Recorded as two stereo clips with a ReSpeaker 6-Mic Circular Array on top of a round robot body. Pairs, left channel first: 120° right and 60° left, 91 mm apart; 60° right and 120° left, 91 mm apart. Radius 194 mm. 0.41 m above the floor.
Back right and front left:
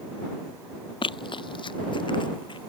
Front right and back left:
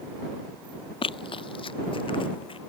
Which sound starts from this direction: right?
Running footsteps, at 1.0 s.